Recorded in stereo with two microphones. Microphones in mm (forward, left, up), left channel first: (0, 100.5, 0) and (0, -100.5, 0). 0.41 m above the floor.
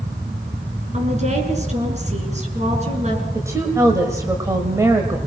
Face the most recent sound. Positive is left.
turn(degrees=-15)  # may be behind; listen again after turning